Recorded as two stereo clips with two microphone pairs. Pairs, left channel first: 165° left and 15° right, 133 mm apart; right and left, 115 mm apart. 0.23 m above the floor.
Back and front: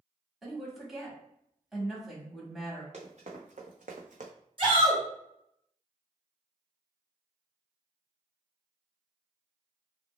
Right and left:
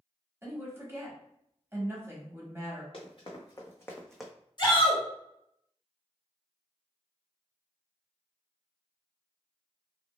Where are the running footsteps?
50° right, 1.2 m; by 4.3 s 15° left, 0.6 m.